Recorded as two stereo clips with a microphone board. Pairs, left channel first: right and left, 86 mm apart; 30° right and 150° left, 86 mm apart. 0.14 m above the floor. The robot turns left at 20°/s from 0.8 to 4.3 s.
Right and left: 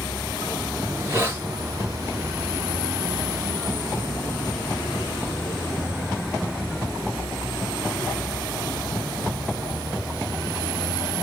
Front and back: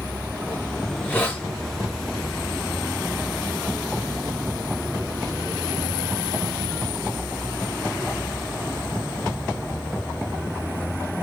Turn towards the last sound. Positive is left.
turn(degrees=-30)